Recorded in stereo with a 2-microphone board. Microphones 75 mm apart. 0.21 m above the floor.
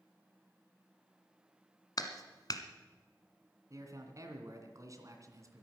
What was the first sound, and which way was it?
A clap, 55° left (ahead or behind).